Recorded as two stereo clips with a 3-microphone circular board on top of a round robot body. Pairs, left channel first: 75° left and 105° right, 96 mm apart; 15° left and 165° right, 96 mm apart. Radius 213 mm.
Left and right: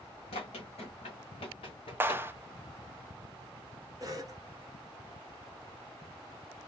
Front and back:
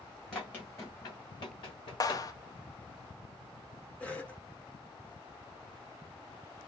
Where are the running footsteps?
95° left, 0.7 m; by 2.2 s 40° left, 1.3 m.